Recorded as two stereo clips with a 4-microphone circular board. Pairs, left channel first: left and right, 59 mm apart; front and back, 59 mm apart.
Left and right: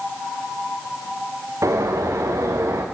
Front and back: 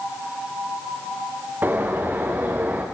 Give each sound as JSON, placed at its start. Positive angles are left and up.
{"t": 1.6, "sound": "a bird", "azimuth_deg": -120, "distance_m": 4.5}